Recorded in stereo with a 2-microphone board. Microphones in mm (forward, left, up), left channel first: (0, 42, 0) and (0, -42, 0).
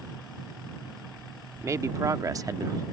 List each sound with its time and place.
1.6 s a man speaking: 35° right (ahead or behind); by 2.8 s 40° right (ahead or behind)